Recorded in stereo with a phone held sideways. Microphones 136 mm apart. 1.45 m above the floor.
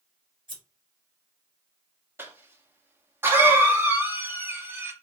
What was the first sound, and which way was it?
Scissors, 40° right (ahead or behind).